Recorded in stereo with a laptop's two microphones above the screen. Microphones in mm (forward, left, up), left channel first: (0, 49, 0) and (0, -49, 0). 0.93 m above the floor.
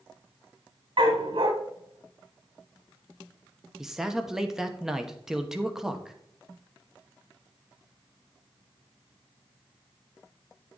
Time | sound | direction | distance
1.0 | a dog barking | 65° right (ahead or behind) | 1.5 m
3.8 | a man speaking | 5° right (ahead or behind) | 0.9 m